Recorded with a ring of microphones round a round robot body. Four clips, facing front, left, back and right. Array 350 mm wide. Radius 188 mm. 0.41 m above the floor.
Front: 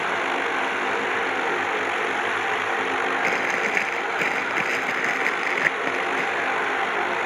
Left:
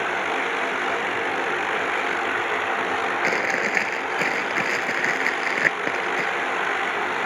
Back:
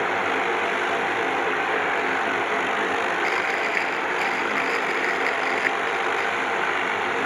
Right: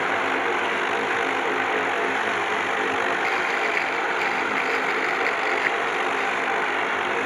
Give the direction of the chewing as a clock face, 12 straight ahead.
10 o'clock.